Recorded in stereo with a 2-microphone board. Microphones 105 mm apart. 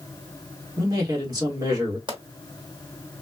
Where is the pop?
45° right (ahead or behind), 1.0 m.